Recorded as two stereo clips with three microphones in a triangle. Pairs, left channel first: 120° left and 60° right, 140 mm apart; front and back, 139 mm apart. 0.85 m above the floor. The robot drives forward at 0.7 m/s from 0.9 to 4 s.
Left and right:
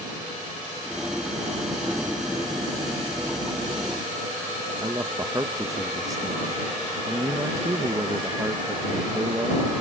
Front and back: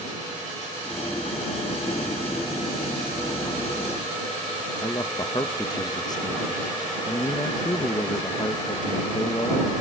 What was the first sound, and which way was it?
A man speaking, 20° right.